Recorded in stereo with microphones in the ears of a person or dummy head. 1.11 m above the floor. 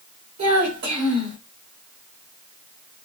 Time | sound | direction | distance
0.4 | a child speaking | 50° right (ahead or behind) | 1.3 m